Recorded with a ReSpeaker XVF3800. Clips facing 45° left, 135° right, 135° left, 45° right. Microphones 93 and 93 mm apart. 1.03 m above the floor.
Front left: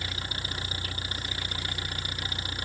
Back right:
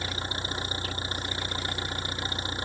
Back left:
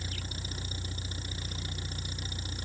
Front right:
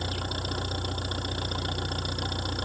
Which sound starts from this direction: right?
An engine running, at 0.0 s.